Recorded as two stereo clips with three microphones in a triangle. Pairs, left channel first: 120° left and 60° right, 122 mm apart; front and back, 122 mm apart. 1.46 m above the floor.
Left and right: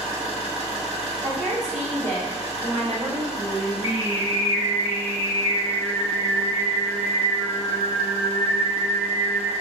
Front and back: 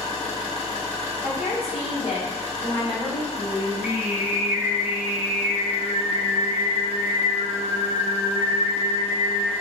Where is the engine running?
35° right, 1.3 m.